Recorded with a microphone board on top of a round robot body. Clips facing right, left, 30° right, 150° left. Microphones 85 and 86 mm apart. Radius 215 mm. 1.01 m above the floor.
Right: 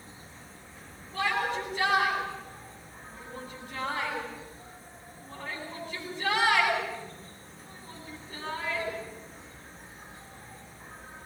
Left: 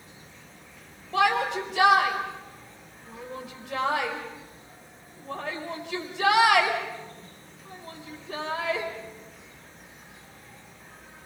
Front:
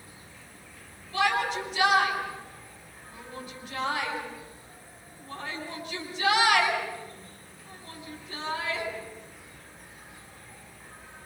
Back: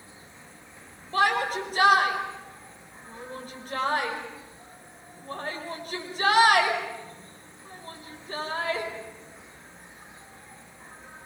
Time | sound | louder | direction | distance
0.0 | an insect | right 1 dB, back 1 dB | 145° right | 3.5 m
1.1 | a shout | left 6 dB, back 2 dB | 100° left | 5 m